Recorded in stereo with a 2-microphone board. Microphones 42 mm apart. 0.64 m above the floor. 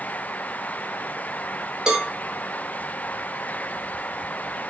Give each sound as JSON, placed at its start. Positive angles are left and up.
{"t": 1.9, "sound": "a cowbell", "side_deg": -15, "distance_m": 0.6}